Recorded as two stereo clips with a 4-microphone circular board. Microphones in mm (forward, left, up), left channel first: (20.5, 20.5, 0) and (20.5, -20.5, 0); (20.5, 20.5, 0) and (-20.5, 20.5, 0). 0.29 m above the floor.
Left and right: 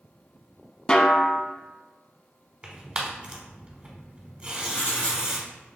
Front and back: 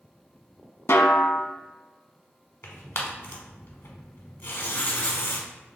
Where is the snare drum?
20° left, 0.5 m.